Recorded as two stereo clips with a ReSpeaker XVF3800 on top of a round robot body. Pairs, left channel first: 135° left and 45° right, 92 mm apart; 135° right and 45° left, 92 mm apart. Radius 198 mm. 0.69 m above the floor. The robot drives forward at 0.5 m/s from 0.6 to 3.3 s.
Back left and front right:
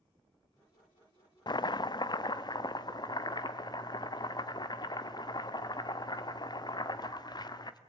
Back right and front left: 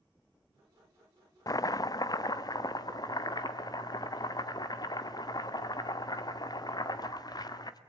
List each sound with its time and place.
1.5 s chopping: 175° left, 0.5 m; by 7.8 s straight behind, 1.4 m